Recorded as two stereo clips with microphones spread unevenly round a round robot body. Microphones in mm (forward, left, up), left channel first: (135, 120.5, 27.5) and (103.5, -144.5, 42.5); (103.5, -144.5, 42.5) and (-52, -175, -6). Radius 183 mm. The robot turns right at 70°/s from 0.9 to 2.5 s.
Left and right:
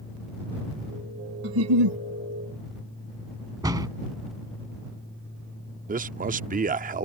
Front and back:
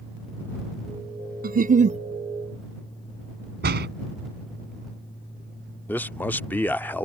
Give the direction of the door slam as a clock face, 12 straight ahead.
6 o'clock.